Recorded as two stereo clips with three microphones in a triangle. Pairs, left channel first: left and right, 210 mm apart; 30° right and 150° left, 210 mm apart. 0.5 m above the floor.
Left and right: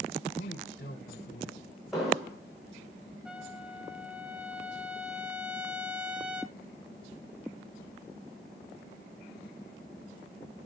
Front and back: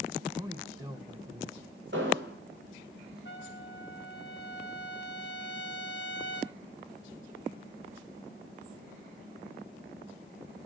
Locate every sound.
0.4 s a man speaking: 80° left, 2.5 m
1.9 s an explosion: straight behind, 6 m
3.2 s a trumpet: 5° right, 1.2 m